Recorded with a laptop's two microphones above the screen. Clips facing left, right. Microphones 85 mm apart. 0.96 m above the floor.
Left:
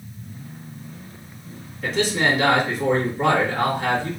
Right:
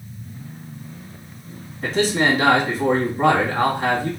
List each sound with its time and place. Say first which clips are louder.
1.8 s a man speaking: right 2 dB; 35° right (ahead or behind), 1.9 m